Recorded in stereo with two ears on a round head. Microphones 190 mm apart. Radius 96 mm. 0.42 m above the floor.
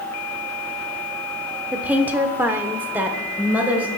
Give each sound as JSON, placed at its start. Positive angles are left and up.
{"t": 1.7, "sound": "a woman speaking", "side_deg": -5, "distance_m": 0.8}